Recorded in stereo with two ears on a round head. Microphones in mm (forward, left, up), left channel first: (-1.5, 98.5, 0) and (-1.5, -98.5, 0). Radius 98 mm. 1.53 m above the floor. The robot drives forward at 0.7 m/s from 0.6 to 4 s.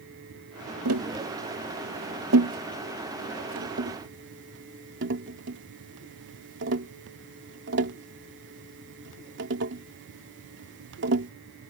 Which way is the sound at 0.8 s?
75° right (ahead or behind).